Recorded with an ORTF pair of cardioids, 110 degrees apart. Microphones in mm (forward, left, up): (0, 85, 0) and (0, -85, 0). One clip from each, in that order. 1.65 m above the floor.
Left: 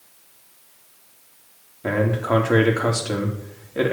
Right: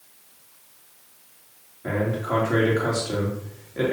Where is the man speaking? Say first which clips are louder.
Left 4 dB; 40° left, 3 m.